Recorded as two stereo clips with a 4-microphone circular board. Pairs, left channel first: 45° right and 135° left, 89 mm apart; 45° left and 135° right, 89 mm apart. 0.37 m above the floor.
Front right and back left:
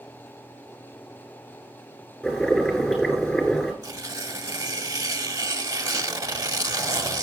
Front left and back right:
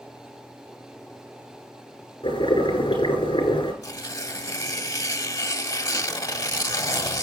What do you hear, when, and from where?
2.2 s boiling: 35° left, 7 m
3.8 s tearing paper: 85° left, 0.9 m